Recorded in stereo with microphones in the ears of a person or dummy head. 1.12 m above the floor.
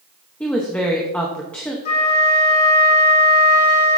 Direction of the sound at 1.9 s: 45° left (ahead or behind).